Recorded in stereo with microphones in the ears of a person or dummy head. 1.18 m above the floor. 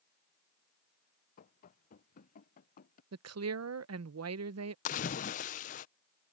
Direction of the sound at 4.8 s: 40° left (ahead or behind).